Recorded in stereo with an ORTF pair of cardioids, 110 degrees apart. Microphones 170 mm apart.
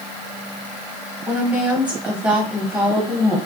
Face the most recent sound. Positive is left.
turn(degrees=-10)